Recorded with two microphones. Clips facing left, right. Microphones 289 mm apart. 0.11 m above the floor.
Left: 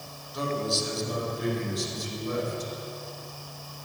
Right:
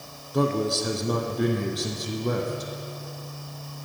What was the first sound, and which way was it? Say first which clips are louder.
A man speaking: right 6 dB; 65° right (ahead or behind).